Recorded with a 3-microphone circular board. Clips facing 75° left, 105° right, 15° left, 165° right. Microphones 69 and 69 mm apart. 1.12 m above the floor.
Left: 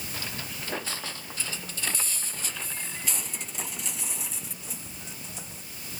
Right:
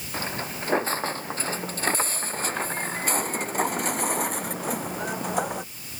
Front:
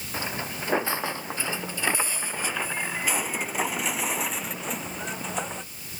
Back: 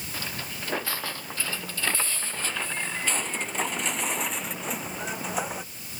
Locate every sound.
0.1 s footsteps: 50° right; by 5.7 s 85° right